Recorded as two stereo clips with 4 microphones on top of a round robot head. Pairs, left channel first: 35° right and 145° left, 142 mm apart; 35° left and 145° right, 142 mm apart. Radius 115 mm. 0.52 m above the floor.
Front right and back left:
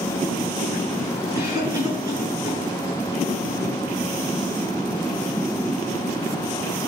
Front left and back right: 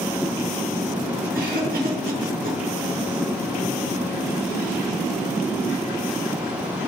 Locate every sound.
1.3 s a cough: 150° right, 6.5 m